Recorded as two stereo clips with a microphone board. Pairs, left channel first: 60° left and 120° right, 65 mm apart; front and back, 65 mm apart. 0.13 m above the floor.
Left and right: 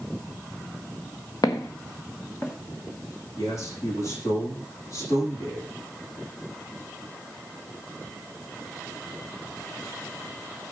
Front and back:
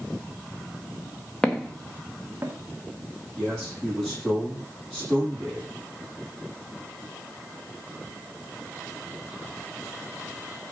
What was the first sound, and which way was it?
Footsteps, 75° left.